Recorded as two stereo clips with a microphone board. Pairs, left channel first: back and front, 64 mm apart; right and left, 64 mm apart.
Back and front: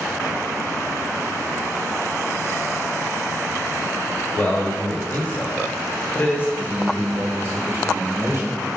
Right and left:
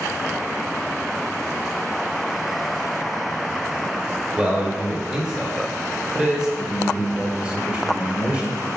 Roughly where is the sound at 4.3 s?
Behind.